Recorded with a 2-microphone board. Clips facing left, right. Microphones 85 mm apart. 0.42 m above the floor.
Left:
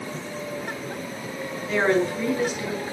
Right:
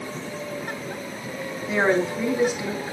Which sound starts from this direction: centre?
A woman speaking, at 1.7 s.